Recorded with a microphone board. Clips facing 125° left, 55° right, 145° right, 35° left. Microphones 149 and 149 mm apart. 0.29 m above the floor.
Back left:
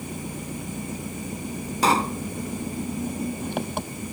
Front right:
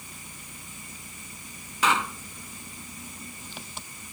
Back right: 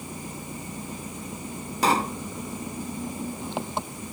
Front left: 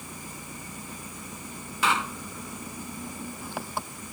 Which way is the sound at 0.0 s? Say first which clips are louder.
Back left 15 dB, back right 5 dB; 145° left.